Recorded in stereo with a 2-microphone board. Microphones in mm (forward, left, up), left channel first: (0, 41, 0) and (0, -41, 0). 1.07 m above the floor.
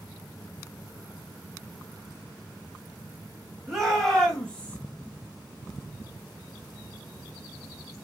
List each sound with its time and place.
3.7 s a shout: 10° right (ahead or behind), 2.0 m; by 4.8 s 5° left (ahead or behind), 1.4 m